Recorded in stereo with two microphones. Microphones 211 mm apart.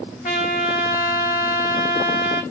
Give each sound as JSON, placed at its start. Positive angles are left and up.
{"t": 0.2, "sound": "a trumpet", "side_deg": 40, "distance_m": 1.2}